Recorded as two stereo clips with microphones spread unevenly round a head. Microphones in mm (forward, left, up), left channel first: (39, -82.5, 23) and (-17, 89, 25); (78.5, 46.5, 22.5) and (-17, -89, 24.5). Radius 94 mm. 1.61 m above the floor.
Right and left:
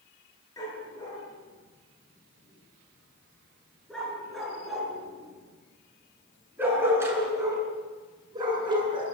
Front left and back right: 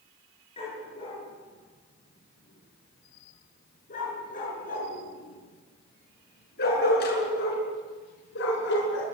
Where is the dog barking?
Straight ahead, 8 m; by 9.2 s 45° left, 6.5 m.